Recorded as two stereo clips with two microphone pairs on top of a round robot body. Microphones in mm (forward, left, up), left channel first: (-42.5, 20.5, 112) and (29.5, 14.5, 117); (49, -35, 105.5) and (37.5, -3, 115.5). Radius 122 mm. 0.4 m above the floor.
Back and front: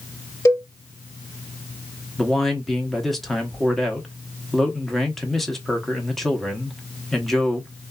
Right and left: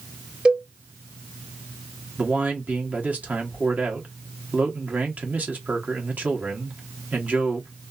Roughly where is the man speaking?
Left.